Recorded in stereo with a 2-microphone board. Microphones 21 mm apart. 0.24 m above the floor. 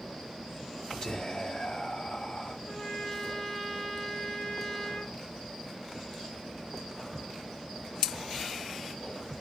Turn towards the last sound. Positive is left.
turn(degrees=25)  # may be behind; listen again after turning